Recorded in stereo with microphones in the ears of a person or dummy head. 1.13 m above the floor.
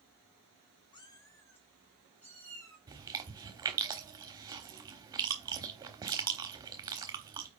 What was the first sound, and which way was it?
A cat meowing, 25° left (ahead or behind).